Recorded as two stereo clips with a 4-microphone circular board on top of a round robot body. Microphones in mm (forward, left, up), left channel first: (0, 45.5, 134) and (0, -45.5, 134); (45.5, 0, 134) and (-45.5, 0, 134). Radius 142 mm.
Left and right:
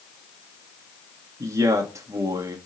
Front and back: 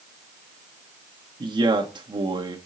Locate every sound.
1.4 s a man speaking: 145° right, 1.7 m